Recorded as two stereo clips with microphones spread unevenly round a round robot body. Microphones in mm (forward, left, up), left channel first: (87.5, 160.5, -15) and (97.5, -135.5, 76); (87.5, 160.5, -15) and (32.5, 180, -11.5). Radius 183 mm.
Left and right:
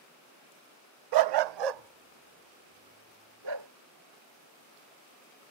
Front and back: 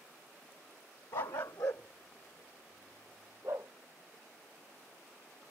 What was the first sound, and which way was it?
A dog barking, 70° right.